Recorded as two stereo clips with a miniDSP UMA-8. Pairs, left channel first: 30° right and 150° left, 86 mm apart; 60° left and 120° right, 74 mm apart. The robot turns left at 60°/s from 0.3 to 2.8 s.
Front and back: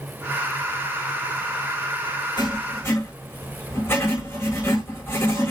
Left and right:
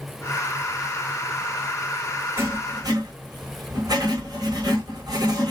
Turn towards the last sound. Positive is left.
turn(degrees=-90)